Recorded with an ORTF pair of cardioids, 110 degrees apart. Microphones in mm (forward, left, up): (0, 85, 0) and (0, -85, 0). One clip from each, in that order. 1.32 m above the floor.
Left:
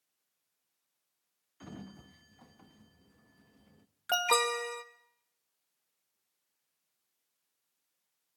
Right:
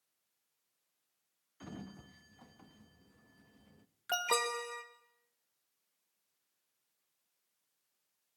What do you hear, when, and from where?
1.6 s a sliding door: straight ahead, 1.2 m
4.1 s an alarm: 25° left, 1.6 m